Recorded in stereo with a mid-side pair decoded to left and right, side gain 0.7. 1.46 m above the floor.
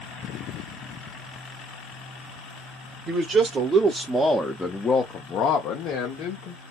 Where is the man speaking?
40° right, 1.0 m; by 6.6 s 70° left, 1.3 m.